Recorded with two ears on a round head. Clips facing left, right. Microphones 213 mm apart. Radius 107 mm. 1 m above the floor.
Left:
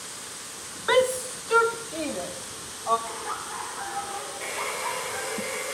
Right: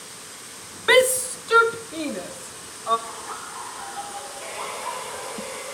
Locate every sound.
0.9 s a shout: 35° right (ahead or behind), 0.6 m; by 3.0 s 15° right (ahead or behind), 3 m
3.1 s laughter: 60° left (ahead or behind), 3.5 m
4.4 s a hair dryer: 30° left (ahead or behind), 3.5 m